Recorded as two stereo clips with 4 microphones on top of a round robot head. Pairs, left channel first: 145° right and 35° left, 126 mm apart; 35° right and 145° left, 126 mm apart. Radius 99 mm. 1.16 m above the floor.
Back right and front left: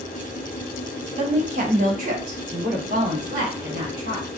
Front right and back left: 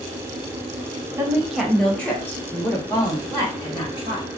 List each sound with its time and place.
1.2 s a woman speaking: 75° left, 1.1 m; by 4.3 s 15° left, 3 m